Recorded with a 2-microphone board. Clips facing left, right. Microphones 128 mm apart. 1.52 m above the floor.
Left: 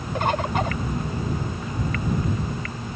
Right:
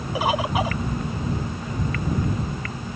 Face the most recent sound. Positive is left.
turn(degrees=-5)  # may be behind; listen again after turning